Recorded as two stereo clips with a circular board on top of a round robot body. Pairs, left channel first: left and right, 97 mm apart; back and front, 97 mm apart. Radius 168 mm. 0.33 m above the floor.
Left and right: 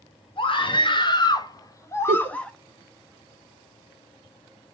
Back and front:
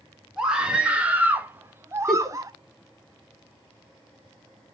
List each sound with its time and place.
0.4 s a scream: 80° left, 2 m; by 2.5 s 15° left, 1.3 m
2.1 s a giggle: 90° right, 0.8 m